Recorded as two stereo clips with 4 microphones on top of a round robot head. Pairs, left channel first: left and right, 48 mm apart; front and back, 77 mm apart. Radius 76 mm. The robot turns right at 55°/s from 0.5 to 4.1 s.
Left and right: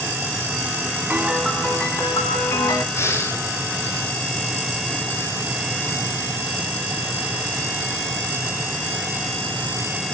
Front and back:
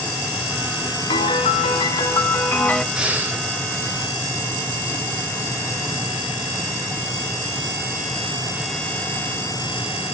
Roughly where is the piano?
Ahead.